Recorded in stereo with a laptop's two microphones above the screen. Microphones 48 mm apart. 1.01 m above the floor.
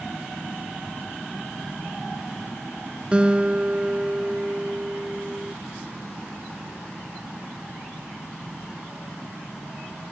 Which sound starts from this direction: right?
A guitar, at 3.1 s.